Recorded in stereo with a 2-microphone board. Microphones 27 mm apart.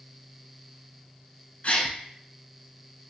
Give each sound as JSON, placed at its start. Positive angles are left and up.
{"t": 1.6, "sound": "a gasp", "side_deg": 55, "distance_m": 0.7}